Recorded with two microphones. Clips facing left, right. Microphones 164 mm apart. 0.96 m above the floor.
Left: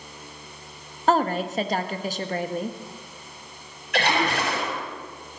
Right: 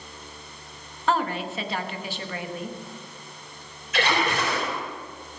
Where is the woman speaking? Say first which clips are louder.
Left 4 dB; 40° left (ahead or behind), 0.9 m.